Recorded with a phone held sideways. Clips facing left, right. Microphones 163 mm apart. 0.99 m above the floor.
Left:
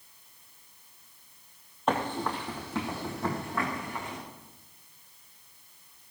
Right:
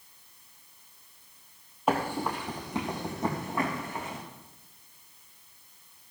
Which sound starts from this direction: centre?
Running footsteps, at 1.9 s.